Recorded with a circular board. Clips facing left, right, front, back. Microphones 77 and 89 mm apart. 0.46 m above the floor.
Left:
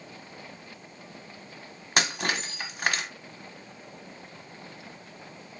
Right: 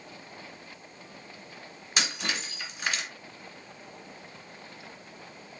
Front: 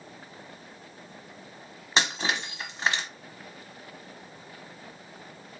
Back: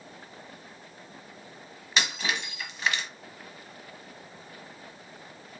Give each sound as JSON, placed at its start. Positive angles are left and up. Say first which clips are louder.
{"t": 2.0, "sound": "breaking glass", "louder": "left 4 dB, front 2 dB", "azimuth_deg": 55, "distance_m": 1.2}